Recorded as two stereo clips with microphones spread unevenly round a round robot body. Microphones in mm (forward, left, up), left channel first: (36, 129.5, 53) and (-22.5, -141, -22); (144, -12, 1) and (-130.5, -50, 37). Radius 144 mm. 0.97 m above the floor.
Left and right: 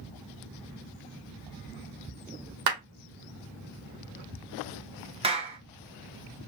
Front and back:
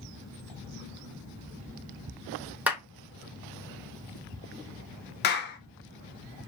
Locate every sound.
2.7 s a clap: 85° right, 2.5 m
5.2 s a clap: 40° right, 1.2 m